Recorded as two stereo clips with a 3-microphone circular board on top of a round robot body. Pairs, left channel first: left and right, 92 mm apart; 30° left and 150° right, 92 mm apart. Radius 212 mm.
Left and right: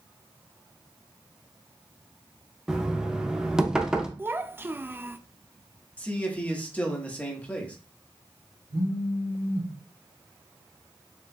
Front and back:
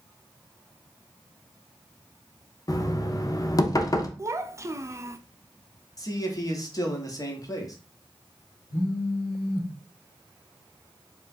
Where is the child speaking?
135° right, 0.7 m.